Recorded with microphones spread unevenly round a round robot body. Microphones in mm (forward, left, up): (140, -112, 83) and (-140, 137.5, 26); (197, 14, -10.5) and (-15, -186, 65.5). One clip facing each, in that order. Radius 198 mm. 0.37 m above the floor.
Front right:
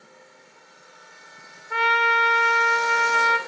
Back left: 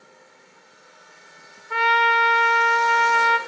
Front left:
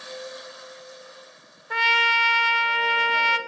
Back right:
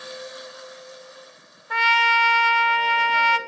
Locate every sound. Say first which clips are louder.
1.7 s a trumpet: back left 2 dB, back right 2 dB; 140° right, 0.9 m